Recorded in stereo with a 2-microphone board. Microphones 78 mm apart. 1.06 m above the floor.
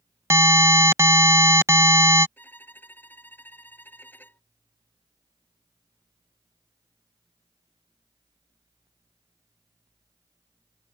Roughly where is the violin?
Left.